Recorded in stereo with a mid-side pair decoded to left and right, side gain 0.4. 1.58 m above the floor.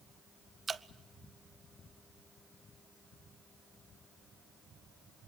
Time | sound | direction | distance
0.7 | dripping | 45° right | 0.6 m